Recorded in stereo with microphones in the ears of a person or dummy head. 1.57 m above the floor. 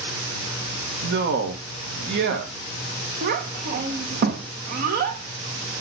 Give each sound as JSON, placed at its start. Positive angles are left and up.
{"t": 1.0, "sound": "a man speaking", "side_deg": -65, "distance_m": 1.8}
{"t": 3.2, "sound": "a child speaking", "side_deg": -50, "distance_m": 1.4}